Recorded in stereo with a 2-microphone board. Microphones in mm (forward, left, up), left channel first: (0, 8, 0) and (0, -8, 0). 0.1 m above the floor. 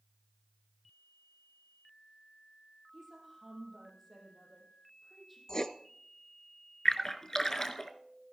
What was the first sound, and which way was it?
A woman speaking, centre (ahead or behind).